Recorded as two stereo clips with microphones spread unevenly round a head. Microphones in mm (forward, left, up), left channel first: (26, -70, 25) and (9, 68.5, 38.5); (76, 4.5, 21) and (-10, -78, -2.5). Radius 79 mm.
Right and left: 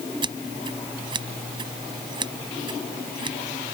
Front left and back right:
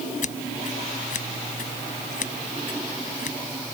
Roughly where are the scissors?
Ahead left.